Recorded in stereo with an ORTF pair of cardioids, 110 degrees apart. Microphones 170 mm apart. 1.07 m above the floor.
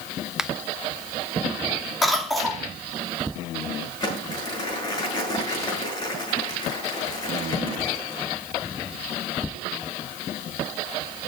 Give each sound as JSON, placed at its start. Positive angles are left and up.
{"t": 0.4, "sound": "a finger snap", "azimuth_deg": -5, "distance_m": 0.7}
{"t": 2.0, "sound": "a cough", "azimuth_deg": 0, "distance_m": 3.0}
{"t": 4.0, "sound": "crumpling", "azimuth_deg": 25, "distance_m": 7.5}